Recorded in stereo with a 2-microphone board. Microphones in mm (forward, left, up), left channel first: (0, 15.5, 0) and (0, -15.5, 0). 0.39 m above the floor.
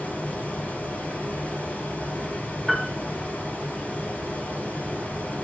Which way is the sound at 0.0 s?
60° left (ahead or behind).